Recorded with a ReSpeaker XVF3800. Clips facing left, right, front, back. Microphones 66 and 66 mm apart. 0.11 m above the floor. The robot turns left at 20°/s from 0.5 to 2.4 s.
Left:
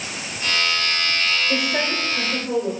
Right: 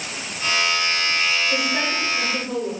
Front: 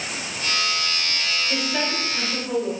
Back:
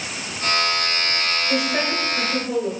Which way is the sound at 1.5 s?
115° left.